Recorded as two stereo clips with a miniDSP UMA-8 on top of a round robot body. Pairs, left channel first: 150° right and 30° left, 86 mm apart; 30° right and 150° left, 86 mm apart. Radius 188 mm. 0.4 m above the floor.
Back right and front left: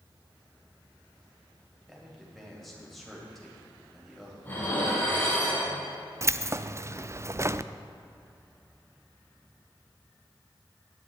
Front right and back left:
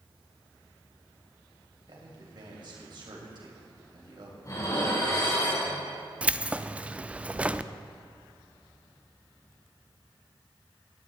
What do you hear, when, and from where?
1.9 s a man speaking: 120° left, 3.5 m
4.4 s dishes clattering: 80° right, 3.5 m
6.2 s keys jangling: 80° left, 0.5 m